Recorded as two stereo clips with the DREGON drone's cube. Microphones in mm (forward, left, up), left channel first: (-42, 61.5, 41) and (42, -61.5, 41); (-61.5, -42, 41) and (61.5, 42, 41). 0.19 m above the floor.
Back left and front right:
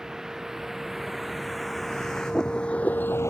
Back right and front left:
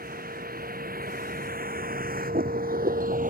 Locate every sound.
0.0 s a vehicle: 30° left; by 3.3 s 55° left